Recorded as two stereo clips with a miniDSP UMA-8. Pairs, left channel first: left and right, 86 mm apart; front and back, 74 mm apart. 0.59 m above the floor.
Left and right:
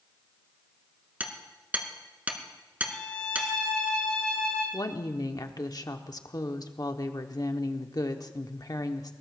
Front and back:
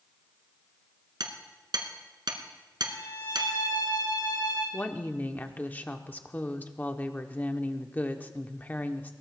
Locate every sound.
1.2 s hammering: 160° right, 1.6 m
2.9 s a violin: 10° left, 8.5 m
4.7 s a woman speaking: 60° left, 1.0 m